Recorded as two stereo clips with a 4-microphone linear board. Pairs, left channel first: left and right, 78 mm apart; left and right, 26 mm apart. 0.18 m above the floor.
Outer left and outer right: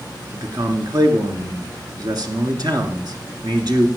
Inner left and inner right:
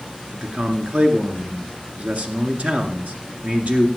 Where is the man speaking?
60° right (ahead or behind), 2 m.